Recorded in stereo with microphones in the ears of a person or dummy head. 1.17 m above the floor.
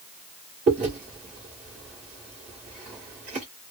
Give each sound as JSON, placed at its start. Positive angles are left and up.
{"t": 0.7, "sound": "chewing", "side_deg": -45, "distance_m": 1.7}